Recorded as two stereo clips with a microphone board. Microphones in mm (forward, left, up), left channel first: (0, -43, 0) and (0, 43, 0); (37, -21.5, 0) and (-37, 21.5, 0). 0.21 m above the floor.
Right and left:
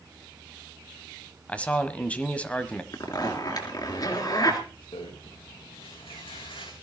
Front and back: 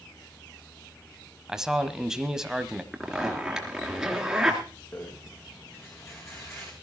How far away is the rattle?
About 4.5 m.